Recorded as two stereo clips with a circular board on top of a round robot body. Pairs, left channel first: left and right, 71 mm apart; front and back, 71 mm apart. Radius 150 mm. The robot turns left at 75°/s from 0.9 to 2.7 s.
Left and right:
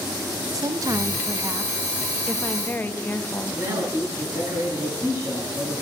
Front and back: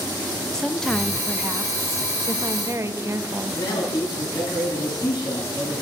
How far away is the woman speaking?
About 1.1 m.